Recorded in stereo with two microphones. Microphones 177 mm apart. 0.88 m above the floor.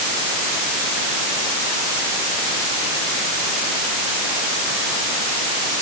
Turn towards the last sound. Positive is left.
No sound to turn to.